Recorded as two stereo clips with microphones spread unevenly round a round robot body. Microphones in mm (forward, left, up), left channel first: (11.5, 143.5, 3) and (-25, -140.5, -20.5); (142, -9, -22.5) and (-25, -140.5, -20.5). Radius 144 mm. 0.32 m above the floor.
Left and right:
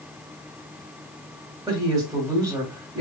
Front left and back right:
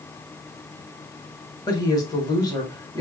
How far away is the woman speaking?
About 1.7 m.